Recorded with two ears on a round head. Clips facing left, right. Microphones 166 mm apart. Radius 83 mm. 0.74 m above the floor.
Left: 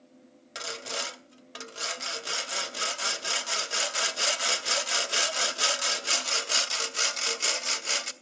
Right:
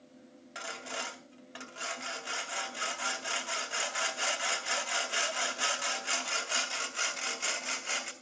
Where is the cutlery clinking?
No cutlery clinking in this recording.